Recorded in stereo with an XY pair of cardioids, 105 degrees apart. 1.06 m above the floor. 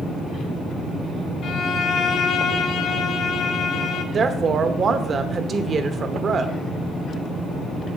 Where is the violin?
60° left, 1.0 m.